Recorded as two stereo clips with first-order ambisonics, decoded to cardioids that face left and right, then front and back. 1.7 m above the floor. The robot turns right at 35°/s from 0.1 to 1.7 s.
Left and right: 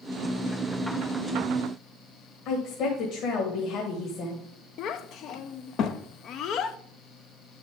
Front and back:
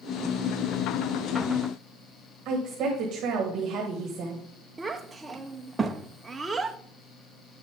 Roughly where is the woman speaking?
Behind left.